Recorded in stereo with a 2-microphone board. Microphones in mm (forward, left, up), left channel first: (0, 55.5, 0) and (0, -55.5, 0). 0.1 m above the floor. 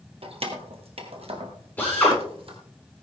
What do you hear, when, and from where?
0.2 s keys jangling: 60° right (ahead or behind), 2 m; by 2.6 s 55° right (ahead or behind), 3 m
1.8 s a drill: 15° left (ahead or behind), 9 m